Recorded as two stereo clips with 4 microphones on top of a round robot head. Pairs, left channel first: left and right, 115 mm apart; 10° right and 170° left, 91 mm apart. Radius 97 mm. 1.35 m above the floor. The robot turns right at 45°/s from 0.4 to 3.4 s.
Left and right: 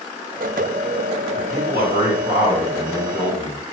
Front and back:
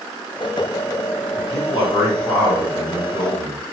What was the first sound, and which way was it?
A man speaking, 90° right.